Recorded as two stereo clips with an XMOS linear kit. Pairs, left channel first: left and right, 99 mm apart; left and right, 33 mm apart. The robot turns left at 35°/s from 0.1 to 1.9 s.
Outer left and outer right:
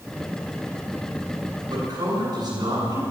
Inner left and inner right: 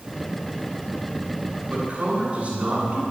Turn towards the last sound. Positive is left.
turn(degrees=-35)  # may be behind; listen again after turning